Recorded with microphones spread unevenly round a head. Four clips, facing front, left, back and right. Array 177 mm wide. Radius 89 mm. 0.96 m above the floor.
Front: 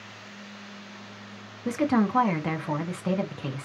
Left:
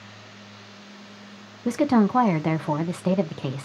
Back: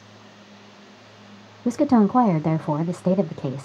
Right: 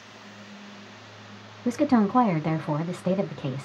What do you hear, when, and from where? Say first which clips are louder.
1.6 s a woman speaking: left 2 dB, back 6 dB; 160° left, 0.6 m